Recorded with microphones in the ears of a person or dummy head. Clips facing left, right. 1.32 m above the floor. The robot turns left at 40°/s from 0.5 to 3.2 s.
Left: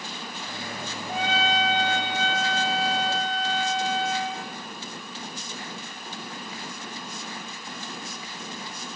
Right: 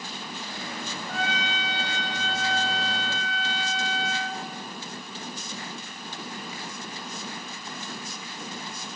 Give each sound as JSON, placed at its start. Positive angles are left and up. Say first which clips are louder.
{"t": 1.1, "sound": "a trumpet", "louder": "left 6 dB", "azimuth_deg": 165, "distance_m": 0.8}